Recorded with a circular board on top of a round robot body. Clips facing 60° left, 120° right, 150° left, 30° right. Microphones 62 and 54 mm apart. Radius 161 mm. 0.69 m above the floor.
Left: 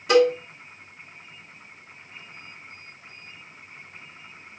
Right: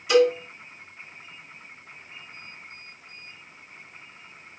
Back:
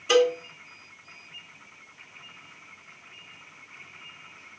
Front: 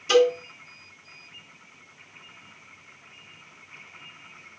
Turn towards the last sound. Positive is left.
turn(degrees=85)